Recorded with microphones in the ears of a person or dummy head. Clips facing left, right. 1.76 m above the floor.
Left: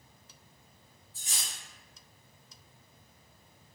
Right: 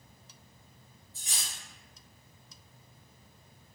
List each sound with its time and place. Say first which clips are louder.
1.1 s cutlery clinking: even; 35° left (ahead or behind), 1.5 m